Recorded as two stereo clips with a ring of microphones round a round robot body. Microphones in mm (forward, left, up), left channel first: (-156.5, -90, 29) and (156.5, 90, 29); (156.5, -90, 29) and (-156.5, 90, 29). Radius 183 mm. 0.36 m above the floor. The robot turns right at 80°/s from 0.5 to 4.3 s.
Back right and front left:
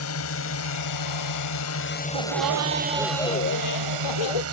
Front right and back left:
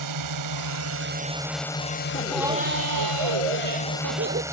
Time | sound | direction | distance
0.0 | a drone | 170° left | ?
2.1 | laughter | 45° left | ?